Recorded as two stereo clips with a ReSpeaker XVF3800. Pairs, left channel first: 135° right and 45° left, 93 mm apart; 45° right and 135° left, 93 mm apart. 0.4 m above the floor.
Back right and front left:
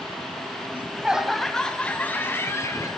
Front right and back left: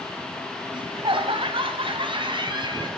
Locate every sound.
0.7 s laughter: 115° left, 1.9 m; by 2.9 s 170° left, 2.5 m